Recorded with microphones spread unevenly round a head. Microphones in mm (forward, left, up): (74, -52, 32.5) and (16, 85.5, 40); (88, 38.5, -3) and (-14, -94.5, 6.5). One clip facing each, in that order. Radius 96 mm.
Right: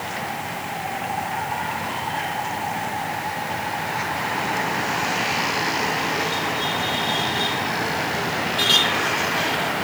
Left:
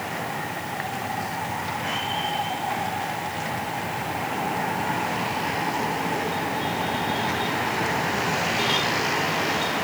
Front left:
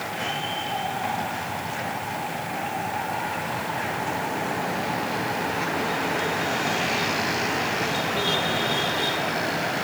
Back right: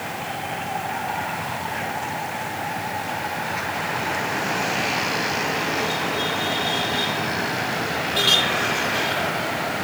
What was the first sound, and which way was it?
Only background noise.